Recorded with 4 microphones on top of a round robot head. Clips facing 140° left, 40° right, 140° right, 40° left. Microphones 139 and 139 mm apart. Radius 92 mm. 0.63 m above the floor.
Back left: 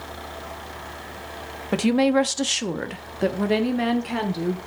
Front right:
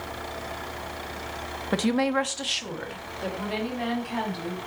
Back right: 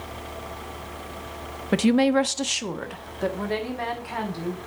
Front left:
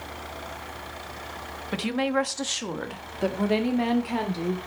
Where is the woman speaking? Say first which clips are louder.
Back left 5 dB, back right 7 dB; 145° right, 0.8 m; by 4.6 s 105° left, 2 m.